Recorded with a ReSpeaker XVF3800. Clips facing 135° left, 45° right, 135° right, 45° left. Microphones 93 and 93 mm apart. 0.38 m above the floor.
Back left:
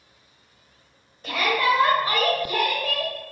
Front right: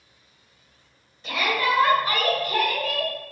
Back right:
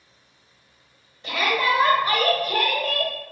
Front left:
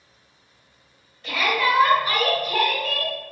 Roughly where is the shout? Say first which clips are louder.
Back left 2 dB, even; behind.